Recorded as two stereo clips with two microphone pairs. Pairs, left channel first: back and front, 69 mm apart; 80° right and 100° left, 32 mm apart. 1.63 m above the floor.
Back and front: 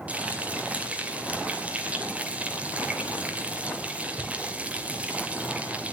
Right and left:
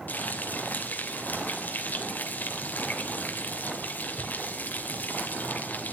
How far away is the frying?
About 2.5 m.